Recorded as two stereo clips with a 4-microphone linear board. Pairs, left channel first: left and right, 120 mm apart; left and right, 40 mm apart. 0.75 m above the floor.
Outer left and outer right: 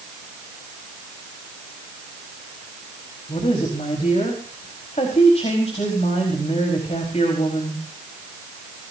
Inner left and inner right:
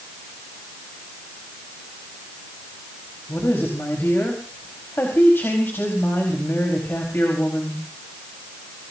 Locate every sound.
3.3 s a woman speaking: 60° left (ahead or behind), 4.5 m